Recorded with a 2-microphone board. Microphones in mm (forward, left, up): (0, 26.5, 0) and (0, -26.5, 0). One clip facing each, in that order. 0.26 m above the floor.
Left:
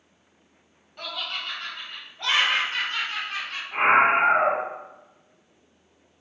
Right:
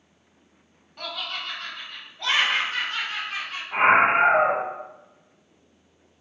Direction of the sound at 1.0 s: 5° left (ahead or behind).